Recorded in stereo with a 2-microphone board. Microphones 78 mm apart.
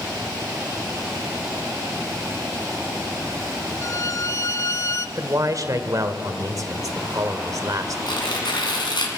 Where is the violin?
40° left (ahead or behind), 0.6 m.